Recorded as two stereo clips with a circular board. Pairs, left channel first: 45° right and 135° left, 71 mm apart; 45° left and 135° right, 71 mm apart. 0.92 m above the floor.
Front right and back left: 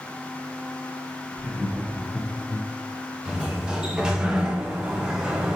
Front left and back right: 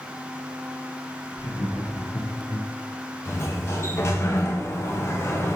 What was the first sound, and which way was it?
Laughter, 60° left.